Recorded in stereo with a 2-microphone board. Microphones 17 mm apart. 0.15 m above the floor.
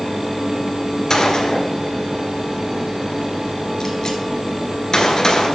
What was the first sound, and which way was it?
A gunshot, 35° left (ahead or behind).